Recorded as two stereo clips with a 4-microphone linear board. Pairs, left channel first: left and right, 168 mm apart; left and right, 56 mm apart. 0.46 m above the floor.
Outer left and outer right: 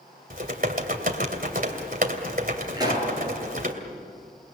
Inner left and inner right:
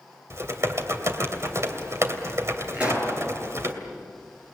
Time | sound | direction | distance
0.3 | typing on a keyboard | 60° right (ahead or behind) | 2.5 m
2.7 | a pop | 25° right (ahead or behind) | 7.5 m